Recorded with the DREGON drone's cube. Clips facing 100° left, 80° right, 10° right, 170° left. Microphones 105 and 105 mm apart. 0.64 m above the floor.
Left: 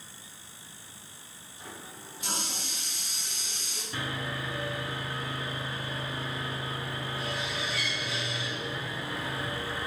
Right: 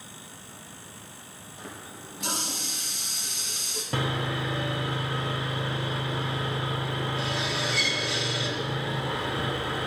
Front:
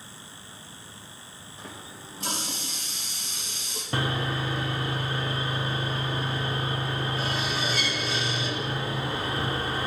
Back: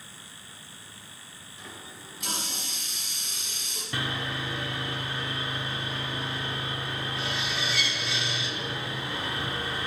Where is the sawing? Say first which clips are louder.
Right 6 dB, front 4 dB; 65° right, 0.7 m.